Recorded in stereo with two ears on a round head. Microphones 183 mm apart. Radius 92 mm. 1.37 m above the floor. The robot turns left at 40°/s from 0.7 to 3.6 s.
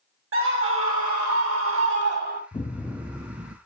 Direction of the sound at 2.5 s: 20° left.